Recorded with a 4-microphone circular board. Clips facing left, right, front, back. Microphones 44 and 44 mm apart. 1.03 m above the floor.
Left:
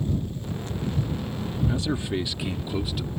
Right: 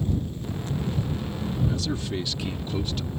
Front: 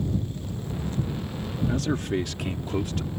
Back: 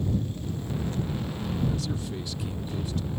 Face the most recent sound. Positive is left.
turn(degrees=10)